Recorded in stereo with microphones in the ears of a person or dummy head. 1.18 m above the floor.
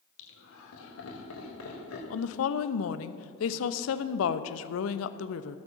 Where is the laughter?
70° left (ahead or behind), 3 m; by 2.0 s 85° left, 4 m.